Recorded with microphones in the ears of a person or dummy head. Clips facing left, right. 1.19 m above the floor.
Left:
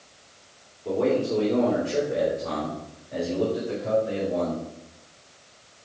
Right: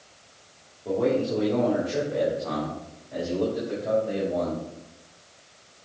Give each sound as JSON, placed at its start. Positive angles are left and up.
{"t": 0.8, "sound": "a man speaking", "side_deg": -5, "distance_m": 2.5}